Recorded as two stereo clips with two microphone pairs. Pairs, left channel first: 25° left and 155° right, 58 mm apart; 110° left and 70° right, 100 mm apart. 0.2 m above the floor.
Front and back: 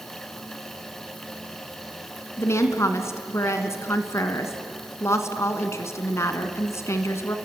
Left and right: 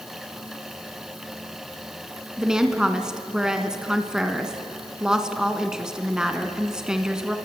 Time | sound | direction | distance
2.4 | a woman speaking | 15° left | 2 m